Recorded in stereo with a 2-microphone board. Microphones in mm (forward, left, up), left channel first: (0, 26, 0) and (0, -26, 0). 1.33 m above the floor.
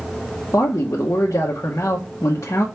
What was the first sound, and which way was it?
A man speaking, 70° left (ahead or behind).